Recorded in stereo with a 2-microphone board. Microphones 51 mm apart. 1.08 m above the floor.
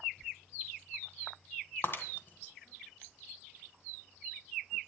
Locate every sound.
1.8 s breaking glass: 40° left (ahead or behind), 2 m